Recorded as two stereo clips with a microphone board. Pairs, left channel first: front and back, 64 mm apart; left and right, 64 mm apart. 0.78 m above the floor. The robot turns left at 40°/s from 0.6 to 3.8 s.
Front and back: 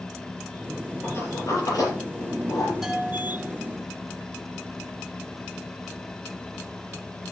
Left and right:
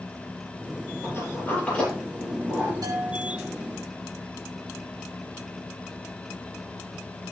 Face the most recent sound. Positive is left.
turn(degrees=-130)